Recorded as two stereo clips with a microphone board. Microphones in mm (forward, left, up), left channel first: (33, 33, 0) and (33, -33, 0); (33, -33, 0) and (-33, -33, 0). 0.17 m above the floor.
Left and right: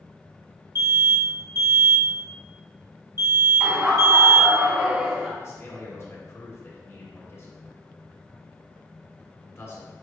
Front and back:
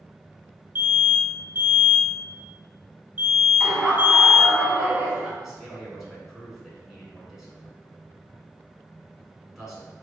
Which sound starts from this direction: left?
A man speaking, at 5.4 s.